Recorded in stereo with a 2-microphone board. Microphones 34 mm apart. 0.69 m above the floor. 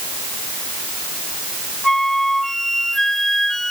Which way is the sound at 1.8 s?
10° left (ahead or behind).